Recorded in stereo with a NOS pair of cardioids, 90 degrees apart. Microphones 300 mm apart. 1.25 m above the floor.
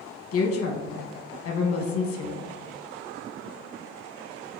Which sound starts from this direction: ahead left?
A woman speaking, at 0.3 s.